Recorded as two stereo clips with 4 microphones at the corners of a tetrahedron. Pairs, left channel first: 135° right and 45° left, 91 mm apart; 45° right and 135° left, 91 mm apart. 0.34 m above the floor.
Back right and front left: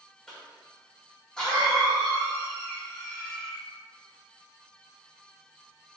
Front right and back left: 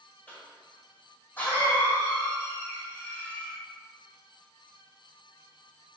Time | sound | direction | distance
0.3 | a cough | 65° right | 1.1 m